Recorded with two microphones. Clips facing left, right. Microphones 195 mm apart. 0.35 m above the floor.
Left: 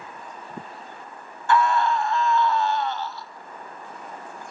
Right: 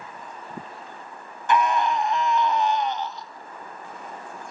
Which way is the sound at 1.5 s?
20° right (ahead or behind).